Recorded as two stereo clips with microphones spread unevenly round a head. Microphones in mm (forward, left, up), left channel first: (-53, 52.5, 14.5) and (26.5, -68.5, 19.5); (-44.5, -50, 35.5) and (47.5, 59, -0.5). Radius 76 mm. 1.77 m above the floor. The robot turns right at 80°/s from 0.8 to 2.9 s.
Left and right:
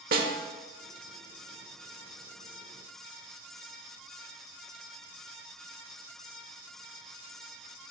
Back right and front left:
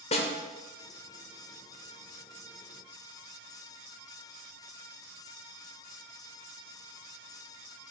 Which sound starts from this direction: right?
A snare drum, at 0.1 s.